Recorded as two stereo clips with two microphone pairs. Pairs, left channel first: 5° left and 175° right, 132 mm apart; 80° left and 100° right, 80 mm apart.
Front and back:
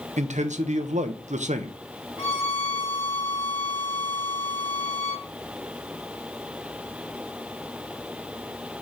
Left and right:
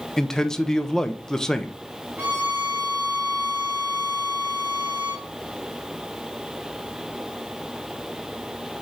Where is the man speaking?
160° left, 0.7 m.